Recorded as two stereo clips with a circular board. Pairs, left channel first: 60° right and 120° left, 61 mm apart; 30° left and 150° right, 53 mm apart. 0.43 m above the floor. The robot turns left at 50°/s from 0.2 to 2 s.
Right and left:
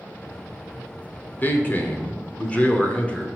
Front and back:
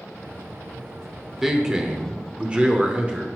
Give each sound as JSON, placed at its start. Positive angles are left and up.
{"t": 1.4, "sound": "a man speaking", "azimuth_deg": -70, "distance_m": 0.8}